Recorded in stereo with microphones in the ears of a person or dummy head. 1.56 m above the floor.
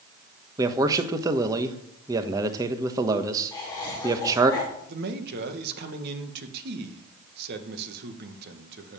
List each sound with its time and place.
0.6 s a man speaking: 25° right (ahead or behind), 1.3 m
3.5 s laughter: 25° left (ahead or behind), 3.5 m
4.9 s a man speaking: 60° right (ahead or behind), 1.7 m